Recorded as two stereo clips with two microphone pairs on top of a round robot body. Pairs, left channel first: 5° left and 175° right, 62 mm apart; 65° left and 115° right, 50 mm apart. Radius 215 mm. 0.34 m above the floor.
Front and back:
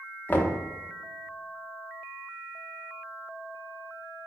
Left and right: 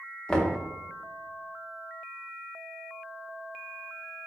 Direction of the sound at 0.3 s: 10° right.